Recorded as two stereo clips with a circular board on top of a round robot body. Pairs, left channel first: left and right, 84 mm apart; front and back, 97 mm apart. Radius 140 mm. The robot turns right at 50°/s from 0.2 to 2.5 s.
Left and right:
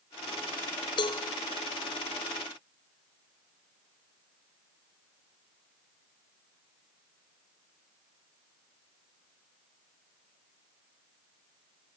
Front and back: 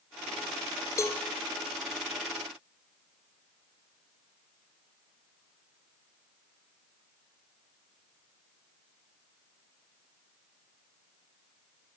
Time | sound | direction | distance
1.0 | a cowbell | 60° left | 1.2 m